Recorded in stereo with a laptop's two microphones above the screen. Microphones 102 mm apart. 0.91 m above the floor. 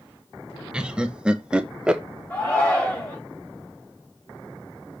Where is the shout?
15° left (ahead or behind), 3.5 m.